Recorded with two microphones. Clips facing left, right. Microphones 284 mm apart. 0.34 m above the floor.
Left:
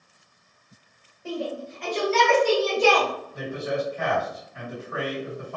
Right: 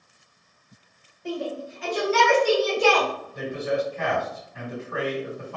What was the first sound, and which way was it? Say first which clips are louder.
A shout: right 1 dB; 5° left (ahead or behind).